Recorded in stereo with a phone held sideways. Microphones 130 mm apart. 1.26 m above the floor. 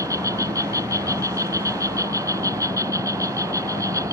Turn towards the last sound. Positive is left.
turn(degrees=-25)  # may be behind; listen again after turning